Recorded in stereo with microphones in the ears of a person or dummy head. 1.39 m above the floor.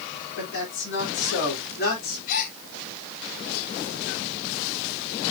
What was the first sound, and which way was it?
A man speaking, 65° left (ahead or behind).